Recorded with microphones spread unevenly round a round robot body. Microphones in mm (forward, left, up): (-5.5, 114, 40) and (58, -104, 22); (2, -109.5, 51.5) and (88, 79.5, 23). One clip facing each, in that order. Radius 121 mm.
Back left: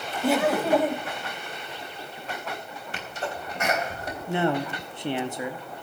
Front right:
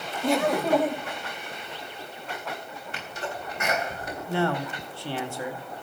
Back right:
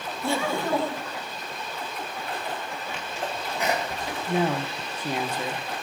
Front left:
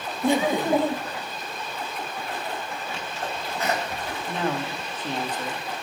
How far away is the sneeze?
About 3.5 m.